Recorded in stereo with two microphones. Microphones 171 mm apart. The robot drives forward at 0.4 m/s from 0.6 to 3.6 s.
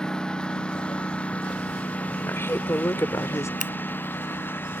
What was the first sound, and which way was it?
A lawn mower, 5° left (ahead or behind).